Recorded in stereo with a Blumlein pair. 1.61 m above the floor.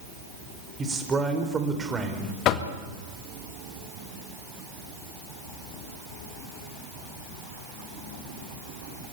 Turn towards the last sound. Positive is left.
turn(degrees=35)